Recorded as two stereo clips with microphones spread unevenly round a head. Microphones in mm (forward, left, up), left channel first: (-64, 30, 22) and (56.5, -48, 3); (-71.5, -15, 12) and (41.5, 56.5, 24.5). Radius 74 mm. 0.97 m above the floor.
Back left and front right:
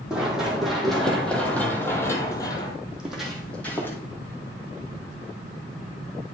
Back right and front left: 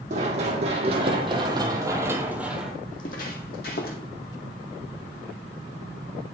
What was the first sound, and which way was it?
Running footsteps, 55° left.